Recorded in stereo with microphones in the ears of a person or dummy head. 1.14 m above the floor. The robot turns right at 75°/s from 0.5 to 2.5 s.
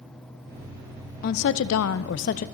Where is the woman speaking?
45° left, 0.6 m; by 2.5 s 140° left, 0.6 m.